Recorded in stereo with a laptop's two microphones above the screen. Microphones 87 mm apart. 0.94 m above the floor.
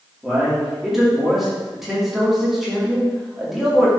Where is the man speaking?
5° right (ahead or behind), 2 m.